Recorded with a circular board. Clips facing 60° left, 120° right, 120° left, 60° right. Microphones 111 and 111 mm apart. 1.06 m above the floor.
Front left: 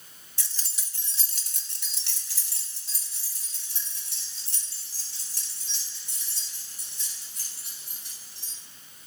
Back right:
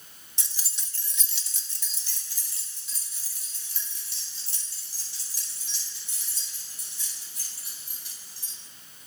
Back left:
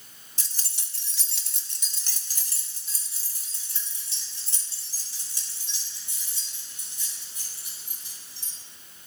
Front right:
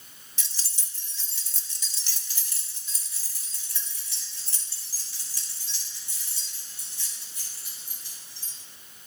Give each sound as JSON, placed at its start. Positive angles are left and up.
{"t": 0.4, "sound": "keys jangling", "azimuth_deg": 170, "distance_m": 0.6}